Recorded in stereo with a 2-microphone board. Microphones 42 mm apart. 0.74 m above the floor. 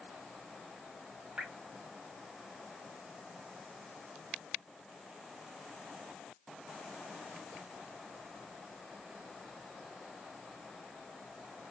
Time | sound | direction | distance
1.4 | dripping | 30° right (ahead or behind) | 0.6 m